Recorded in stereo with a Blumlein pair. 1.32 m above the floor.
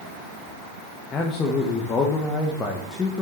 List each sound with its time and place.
1.1 s a man speaking: 20° left, 1.4 m